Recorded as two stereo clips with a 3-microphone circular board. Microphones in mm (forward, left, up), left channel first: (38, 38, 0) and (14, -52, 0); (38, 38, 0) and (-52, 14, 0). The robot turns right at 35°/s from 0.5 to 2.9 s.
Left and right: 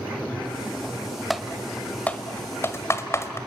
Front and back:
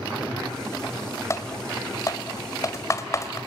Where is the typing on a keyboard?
15° right, 1.6 m; by 3.4 s 40° left, 1.6 m.